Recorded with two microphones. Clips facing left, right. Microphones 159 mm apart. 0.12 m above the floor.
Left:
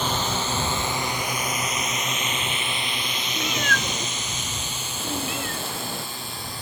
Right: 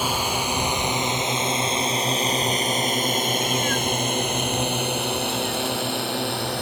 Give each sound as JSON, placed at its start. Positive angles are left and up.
{"t": 0.0, "sound": "a drone", "side_deg": -10}
{"t": 3.4, "sound": "a cat meowing", "side_deg": 65}